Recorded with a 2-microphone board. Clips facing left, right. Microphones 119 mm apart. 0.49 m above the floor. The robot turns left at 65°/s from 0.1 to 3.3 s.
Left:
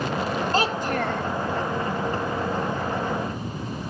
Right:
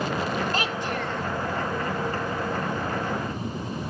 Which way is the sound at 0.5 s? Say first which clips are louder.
Left 4 dB; 145° left.